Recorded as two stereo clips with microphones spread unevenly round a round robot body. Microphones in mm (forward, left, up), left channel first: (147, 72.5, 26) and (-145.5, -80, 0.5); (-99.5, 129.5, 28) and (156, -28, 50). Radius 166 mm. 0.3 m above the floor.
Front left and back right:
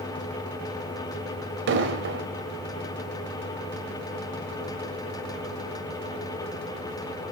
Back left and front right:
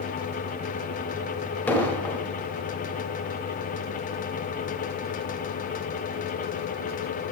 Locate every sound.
1.7 s an explosion: 135° right, 1.1 m